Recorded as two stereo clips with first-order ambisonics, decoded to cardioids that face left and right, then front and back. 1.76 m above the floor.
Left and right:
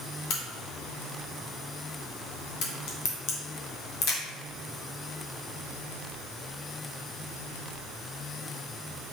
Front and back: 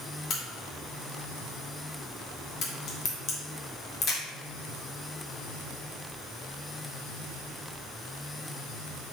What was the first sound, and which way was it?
A crack, 60° left.